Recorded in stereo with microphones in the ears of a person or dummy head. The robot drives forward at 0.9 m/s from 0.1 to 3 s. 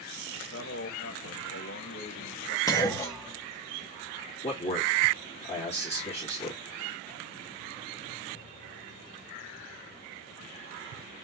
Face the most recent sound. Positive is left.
turn(degrees=35)  # may be behind; listen again after turning